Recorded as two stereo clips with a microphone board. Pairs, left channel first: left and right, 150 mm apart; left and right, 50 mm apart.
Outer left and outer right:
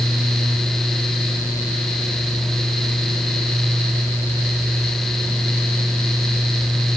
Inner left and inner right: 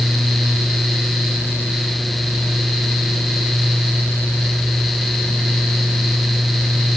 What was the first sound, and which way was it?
Only background noise.